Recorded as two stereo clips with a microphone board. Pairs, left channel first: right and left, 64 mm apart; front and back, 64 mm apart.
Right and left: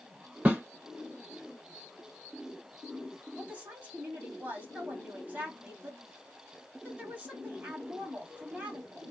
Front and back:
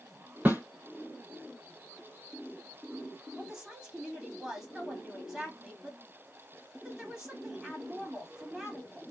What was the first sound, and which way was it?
A snare drum, 140° left.